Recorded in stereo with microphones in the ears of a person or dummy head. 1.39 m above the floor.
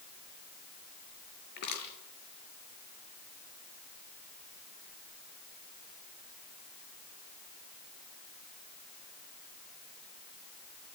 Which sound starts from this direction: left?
Crushing, at 1.6 s.